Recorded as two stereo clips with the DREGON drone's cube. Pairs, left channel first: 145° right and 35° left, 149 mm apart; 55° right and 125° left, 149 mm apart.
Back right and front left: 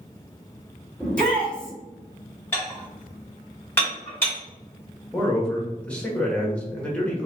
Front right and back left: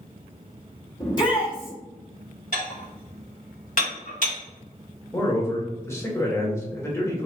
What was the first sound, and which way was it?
A shout, 65° right.